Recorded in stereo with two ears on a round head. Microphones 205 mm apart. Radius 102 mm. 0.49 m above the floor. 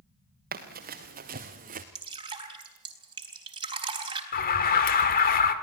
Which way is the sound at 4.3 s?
40° left (ahead or behind).